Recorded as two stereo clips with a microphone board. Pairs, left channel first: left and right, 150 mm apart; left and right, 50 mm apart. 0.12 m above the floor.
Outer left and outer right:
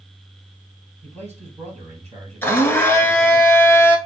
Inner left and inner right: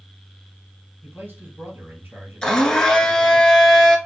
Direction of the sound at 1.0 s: 50° right (ahead or behind).